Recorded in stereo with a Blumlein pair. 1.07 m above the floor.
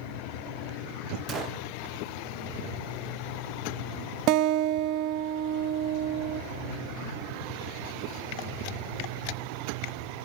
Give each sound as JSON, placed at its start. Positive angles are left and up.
{"t": 1.3, "sound": "a gunshot", "azimuth_deg": -25, "distance_m": 0.9}
{"t": 4.3, "sound": "a guitar", "azimuth_deg": -40, "distance_m": 0.5}